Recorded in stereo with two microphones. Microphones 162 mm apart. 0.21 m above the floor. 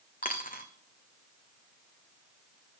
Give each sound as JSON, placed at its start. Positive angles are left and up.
{"t": 0.2, "sound": "a dropped coin", "side_deg": 60, "distance_m": 1.0}